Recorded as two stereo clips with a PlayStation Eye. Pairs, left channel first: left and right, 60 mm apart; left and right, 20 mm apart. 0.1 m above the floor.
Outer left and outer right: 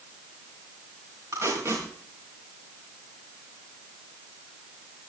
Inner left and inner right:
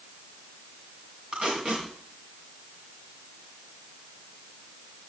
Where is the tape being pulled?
50° right (ahead or behind), 6.5 m.